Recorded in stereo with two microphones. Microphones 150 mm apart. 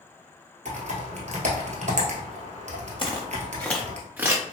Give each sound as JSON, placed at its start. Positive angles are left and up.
{"t": 0.7, "sound": "typing on a keyboard", "side_deg": -50, "distance_m": 0.9}
{"t": 3.0, "sound": "footsteps", "side_deg": 35, "distance_m": 0.9}